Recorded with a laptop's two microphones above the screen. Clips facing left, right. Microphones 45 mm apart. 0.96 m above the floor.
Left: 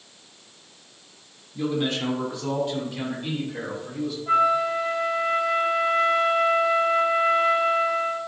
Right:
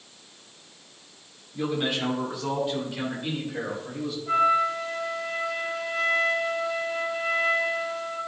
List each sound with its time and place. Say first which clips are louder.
1.5 s a man speaking: left 1 dB; 15° right (ahead or behind), 2.5 m; by 4.2 s centre (ahead or behind), 3.5 m
4.3 s a flute: left 1 dB; 25° left (ahead or behind), 1.8 m